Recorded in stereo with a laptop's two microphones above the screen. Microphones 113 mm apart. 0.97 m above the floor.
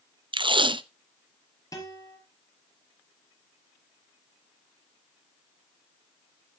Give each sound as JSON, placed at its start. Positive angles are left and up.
{"t": 0.3, "sound": "tape being pulled", "side_deg": -45, "distance_m": 0.6}
{"t": 1.7, "sound": "a guitar", "side_deg": 30, "distance_m": 4.0}